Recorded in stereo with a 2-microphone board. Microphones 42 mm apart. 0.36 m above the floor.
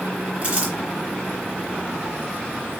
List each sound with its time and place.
0.4 s crumpling: 30° right (ahead or behind), 1.7 m